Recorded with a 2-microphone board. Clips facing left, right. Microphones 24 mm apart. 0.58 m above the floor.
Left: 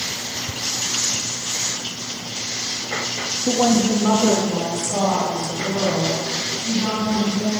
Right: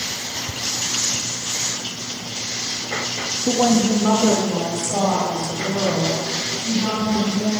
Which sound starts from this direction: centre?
A woman speaking, at 3.5 s.